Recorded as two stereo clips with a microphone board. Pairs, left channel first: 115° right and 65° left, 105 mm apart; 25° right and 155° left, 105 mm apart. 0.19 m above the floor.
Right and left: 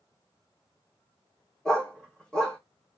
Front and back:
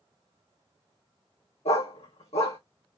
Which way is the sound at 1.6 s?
30° right.